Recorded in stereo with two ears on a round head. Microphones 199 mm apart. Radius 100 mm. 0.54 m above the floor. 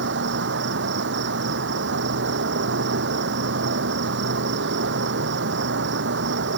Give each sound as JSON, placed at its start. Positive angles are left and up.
{"t": 0.0, "sound": "an insect", "side_deg": -55}